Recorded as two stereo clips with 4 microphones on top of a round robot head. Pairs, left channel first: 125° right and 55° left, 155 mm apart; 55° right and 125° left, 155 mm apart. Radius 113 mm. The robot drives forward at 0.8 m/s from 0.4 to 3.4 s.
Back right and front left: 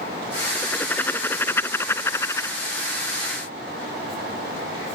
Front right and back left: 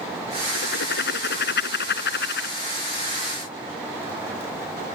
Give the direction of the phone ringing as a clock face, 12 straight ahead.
No phone ringing in this recording.